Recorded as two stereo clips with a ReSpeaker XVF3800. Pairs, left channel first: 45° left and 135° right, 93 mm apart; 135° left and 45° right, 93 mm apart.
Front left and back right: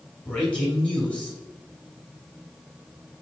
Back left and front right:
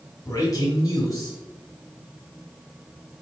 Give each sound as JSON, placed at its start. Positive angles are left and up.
{"t": 0.2, "sound": "a man speaking", "azimuth_deg": 115, "distance_m": 1.8}